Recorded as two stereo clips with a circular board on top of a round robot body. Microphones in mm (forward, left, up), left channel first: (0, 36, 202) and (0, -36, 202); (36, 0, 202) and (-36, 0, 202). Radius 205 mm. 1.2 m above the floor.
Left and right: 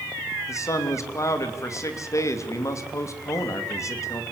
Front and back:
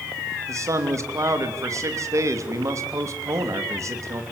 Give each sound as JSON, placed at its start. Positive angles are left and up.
{"t": 0.5, "sound": "a man speaking", "azimuth_deg": 135, "distance_m": 3.0}